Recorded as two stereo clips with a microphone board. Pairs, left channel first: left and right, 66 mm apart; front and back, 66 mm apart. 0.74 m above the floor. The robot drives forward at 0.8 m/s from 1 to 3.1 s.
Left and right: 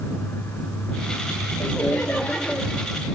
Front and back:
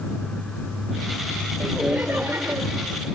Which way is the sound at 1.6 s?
100° left.